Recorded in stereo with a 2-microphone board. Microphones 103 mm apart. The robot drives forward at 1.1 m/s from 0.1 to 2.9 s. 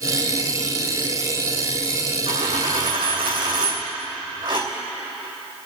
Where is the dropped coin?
55° right (ahead or behind), 2.5 m; by 4.7 s 45° right (ahead or behind), 3 m.